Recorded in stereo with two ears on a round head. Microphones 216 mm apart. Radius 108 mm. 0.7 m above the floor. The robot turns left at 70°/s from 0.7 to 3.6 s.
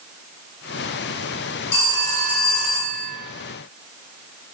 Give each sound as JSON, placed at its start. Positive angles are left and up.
{"t": 1.7, "sound": "a phone ringing", "azimuth_deg": 105, "distance_m": 1.7}